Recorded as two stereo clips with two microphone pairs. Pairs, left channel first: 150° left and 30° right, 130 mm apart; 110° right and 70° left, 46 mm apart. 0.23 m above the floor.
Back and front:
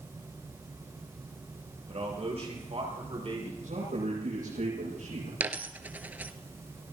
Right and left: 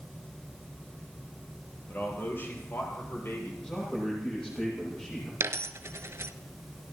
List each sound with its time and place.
1.9 s a man speaking: 65° right, 5 m; by 3.5 s 75° right, 6 m
3.6 s a man speaking: 35° right, 8 m
5.4 s a dropped coin: 50° left, 0.7 m